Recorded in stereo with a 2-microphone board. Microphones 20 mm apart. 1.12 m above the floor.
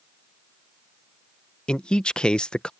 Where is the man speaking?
55° left (ahead or behind).